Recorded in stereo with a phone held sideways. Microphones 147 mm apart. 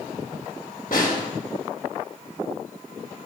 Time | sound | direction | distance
0.9 | a snare drum | 75° left (ahead or behind) | 3 m